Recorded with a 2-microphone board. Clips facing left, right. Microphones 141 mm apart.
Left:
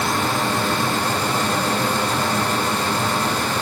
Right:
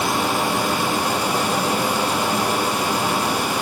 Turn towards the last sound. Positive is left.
No sound to turn to.